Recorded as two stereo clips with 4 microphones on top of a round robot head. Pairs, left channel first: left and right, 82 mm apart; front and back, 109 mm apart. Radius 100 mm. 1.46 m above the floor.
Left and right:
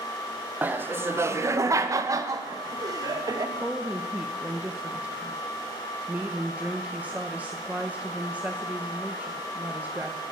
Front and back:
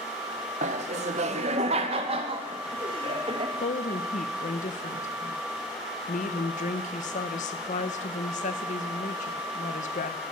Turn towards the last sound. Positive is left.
turn(degrees=-15)